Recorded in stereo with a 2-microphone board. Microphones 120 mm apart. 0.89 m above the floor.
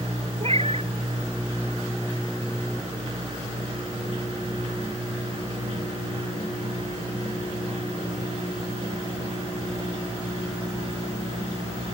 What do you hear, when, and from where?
0.4 s a cat meowing: 55° right (ahead or behind)